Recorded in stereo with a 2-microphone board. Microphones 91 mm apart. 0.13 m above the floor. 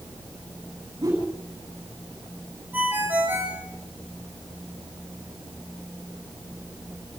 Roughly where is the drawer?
No drawer in this recording.